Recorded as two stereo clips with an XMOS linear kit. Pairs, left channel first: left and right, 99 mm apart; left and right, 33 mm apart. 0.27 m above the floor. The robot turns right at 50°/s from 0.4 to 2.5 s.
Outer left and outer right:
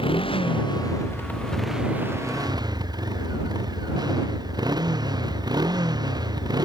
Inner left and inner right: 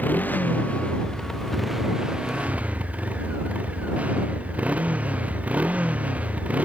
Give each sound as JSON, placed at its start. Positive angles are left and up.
{"t": 0.0, "sound": "a motorcycle", "azimuth_deg": 120}